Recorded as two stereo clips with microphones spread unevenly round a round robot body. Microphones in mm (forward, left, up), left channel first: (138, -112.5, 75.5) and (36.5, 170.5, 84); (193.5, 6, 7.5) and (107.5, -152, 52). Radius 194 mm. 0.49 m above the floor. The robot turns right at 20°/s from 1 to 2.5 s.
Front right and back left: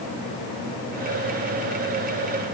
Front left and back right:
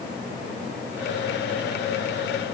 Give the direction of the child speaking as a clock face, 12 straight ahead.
I don't hear a child speaking.